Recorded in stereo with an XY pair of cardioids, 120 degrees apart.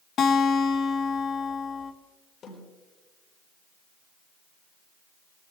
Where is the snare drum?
55° left, 9.5 m.